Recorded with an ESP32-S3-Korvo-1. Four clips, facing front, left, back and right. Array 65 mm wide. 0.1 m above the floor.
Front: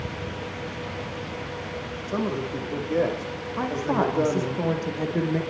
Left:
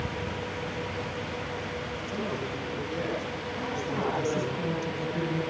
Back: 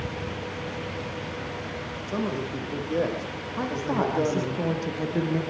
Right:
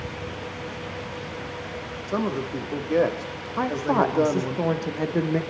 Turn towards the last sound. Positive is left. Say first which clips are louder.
# right 11 dB, front 2 dB
turn(degrees=-85)